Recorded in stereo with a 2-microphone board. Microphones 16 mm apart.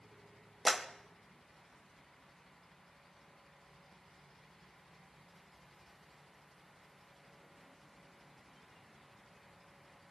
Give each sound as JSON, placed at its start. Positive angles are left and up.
{"t": 0.7, "sound": "a clap", "side_deg": -5, "distance_m": 0.9}